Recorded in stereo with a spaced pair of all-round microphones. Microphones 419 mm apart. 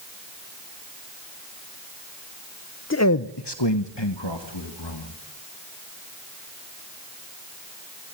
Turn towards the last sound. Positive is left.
turn(degrees=85)